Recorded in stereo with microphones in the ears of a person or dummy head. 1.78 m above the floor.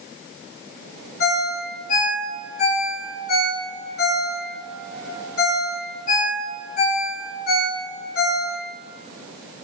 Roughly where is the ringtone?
Left.